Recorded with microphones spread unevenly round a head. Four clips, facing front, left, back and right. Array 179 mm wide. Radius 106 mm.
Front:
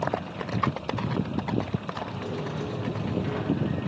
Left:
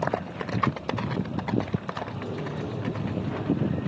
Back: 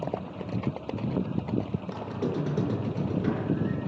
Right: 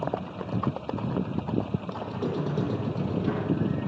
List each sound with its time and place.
1.9 s a squeak: 150° right, 5 m